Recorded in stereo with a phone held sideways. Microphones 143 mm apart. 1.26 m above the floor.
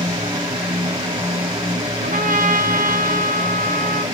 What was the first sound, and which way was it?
A fan, 30° right (ahead or behind).